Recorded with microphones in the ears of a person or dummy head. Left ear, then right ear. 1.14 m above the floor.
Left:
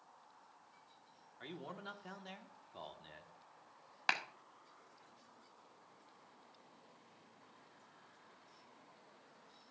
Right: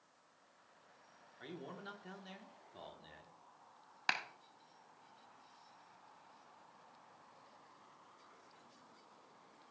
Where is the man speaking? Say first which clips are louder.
Left 1 dB; 20° left (ahead or behind), 1.2 m.